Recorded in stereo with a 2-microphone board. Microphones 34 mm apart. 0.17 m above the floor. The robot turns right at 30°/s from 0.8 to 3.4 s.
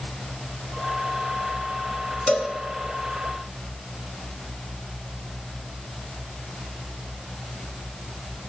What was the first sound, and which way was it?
A cowbell, 40° left (ahead or behind).